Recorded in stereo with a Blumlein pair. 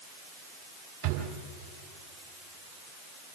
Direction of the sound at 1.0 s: 50° right.